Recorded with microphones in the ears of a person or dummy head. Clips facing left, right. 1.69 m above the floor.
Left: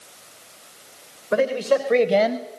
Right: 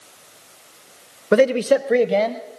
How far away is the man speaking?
About 0.9 m.